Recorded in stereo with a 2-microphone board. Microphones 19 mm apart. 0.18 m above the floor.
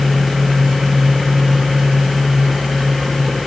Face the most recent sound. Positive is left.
No sound to turn to.